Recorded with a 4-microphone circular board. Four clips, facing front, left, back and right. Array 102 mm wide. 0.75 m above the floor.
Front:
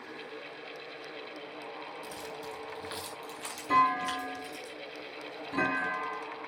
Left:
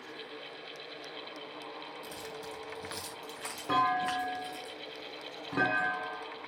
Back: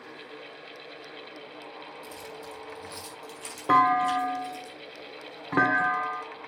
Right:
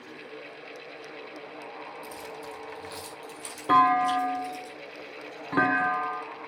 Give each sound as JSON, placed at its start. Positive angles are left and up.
{"t": 2.0, "sound": "keys jangling", "azimuth_deg": 40, "distance_m": 4.0}
{"t": 3.7, "sound": "a clunk", "azimuth_deg": -155, "distance_m": 2.5}